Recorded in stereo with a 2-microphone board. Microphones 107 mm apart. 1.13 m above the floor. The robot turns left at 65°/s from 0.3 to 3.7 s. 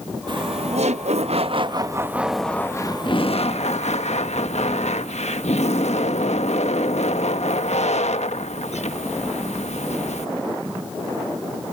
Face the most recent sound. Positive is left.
turn(degrees=95)